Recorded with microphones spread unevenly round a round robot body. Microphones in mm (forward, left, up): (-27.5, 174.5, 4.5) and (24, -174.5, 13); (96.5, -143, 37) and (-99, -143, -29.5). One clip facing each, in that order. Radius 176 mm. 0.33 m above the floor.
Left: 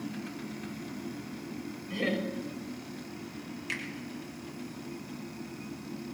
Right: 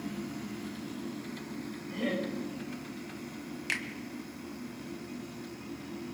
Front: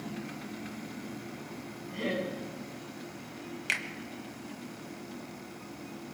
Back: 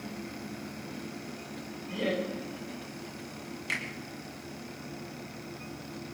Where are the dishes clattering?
I don't hear dishes clattering.